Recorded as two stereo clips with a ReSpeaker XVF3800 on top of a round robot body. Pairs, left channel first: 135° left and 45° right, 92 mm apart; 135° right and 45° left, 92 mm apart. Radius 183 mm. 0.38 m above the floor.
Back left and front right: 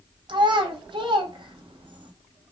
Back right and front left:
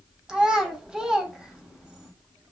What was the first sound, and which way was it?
A child speaking, 35° right.